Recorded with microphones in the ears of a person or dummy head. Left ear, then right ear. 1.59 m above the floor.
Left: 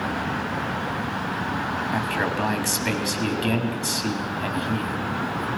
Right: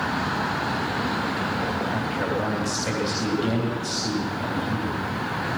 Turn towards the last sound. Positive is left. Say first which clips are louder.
# left 1 dB
turn(degrees=30)  # may be behind; listen again after turning